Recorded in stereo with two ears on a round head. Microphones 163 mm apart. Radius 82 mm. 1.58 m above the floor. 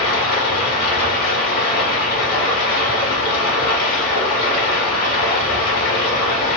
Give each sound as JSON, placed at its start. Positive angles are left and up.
{"t": 0.0, "sound": "running water", "side_deg": 50, "distance_m": 1.8}